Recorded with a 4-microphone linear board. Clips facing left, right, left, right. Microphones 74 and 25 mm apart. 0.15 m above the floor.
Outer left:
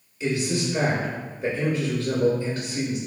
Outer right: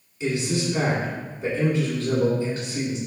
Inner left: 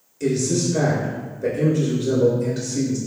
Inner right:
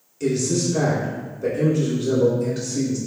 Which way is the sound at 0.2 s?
25° right (ahead or behind).